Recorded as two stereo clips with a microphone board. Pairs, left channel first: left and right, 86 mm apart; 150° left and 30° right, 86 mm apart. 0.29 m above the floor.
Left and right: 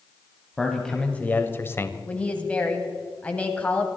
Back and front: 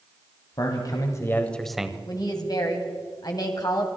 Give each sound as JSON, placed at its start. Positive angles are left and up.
{"t": 0.6, "sound": "a man speaking", "azimuth_deg": 175, "distance_m": 1.6}
{"t": 2.1, "sound": "a woman speaking", "azimuth_deg": 160, "distance_m": 2.0}